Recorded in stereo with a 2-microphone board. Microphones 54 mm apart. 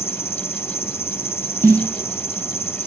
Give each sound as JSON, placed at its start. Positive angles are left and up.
{"t": 0.0, "sound": "an insect", "side_deg": 50, "distance_m": 2.0}
{"t": 1.6, "sound": "a snare drum", "side_deg": -65, "distance_m": 2.0}